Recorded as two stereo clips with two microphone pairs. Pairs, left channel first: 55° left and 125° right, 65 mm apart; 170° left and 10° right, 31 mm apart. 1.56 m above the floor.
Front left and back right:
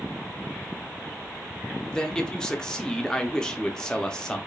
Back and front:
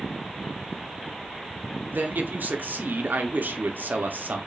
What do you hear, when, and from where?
1.9 s a man speaking: 25° right, 0.9 m